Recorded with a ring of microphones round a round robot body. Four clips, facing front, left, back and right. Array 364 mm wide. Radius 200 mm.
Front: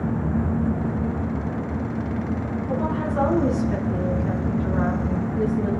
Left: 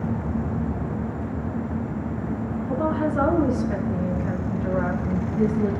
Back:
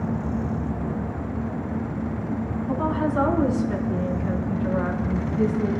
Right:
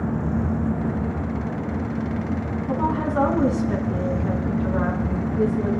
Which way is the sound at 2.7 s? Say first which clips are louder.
Even, back 2 dB; 105° right.